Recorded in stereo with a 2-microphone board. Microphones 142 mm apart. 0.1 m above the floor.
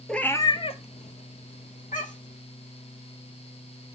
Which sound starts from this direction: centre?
A cat meowing, at 0.1 s.